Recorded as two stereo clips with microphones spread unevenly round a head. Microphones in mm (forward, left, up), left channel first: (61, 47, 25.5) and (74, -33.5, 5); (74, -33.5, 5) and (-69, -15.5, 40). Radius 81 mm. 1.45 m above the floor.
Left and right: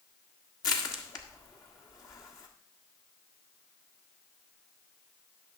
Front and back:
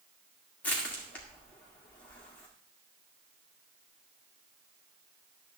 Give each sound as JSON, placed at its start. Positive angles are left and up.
{"t": 0.6, "sound": "crushing", "azimuth_deg": 80, "distance_m": 1.7}